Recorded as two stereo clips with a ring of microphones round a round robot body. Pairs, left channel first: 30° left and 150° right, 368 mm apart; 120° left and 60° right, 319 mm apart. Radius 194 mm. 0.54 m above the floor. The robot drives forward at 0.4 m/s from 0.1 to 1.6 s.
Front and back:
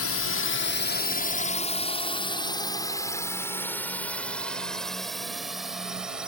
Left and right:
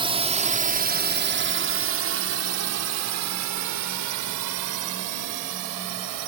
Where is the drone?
5° left; by 6.3 s 60° right.